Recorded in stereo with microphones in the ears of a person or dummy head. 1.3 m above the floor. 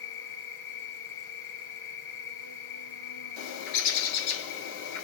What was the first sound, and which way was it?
An insect, 60° left (ahead or behind).